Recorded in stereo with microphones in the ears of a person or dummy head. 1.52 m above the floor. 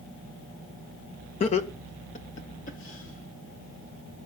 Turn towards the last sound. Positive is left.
turn(degrees=50)  # may be behind; listen again after turning